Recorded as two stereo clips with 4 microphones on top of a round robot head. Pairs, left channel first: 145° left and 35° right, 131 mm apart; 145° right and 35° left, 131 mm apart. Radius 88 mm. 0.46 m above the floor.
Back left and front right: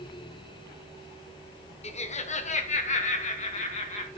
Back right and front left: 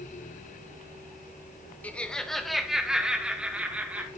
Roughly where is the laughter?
Behind left.